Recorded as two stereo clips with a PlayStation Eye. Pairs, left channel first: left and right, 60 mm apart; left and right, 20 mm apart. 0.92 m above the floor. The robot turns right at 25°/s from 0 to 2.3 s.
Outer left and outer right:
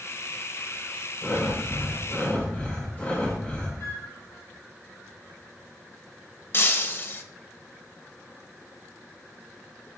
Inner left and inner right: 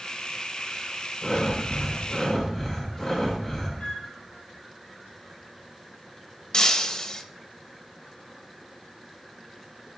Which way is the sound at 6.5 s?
40° left (ahead or behind).